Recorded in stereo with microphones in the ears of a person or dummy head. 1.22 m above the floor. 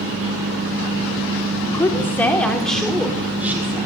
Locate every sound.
1.7 s a woman speaking: 15° left (ahead or behind), 4 m; by 3.9 s 10° right (ahead or behind), 5 m